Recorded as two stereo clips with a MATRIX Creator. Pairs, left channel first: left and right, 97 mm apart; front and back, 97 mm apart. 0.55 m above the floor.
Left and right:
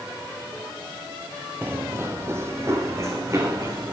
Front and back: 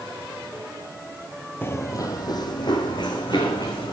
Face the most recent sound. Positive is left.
turn(degrees=-30)